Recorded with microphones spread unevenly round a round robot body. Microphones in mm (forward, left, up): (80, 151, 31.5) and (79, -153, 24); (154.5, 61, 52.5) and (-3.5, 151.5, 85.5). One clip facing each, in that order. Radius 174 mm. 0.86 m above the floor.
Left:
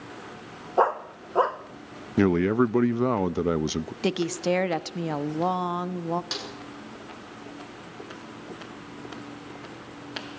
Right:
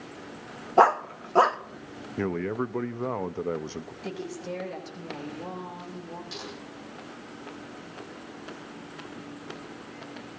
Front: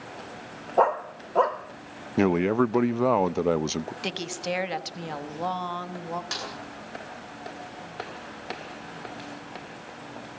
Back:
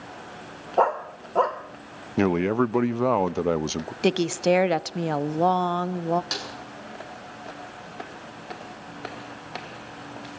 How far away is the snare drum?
About 8.5 m.